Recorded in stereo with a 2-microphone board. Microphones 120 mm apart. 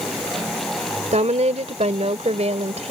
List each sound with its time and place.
1.1 s a woman speaking: 75° right (ahead or behind); by 2.9 s 65° right (ahead or behind)